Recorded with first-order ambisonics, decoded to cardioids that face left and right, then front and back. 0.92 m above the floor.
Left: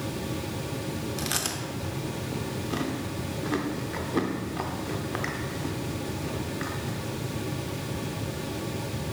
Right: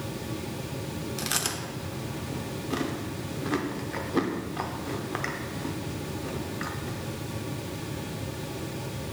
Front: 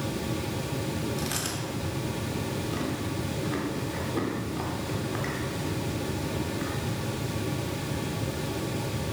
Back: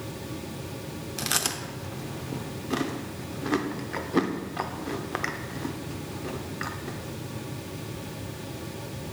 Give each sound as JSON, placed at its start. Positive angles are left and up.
{"t": 1.2, "sound": "chewing", "azimuth_deg": -175, "distance_m": 0.5}